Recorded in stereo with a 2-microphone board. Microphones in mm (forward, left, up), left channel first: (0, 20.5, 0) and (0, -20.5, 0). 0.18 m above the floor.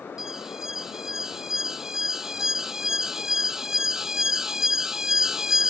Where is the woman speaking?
No woman speaking in this recording.